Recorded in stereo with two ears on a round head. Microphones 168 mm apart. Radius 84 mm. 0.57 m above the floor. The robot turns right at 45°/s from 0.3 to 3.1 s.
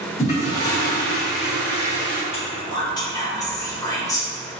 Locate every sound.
0.2 s a toilet flushing: 135° left, 1.5 m; by 2.2 s 140° right, 1.5 m
2.3 s whispering: 30° left (ahead or behind), 0.9 m; by 4.6 s 20° left (ahead or behind), 0.9 m